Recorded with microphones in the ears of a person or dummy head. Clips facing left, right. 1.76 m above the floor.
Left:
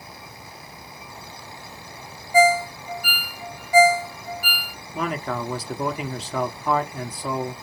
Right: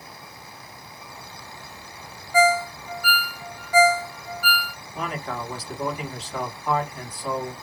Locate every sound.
2.3 s a ringtone: 15° left (ahead or behind), 0.7 m
5.0 s a man speaking: 60° left (ahead or behind), 1.3 m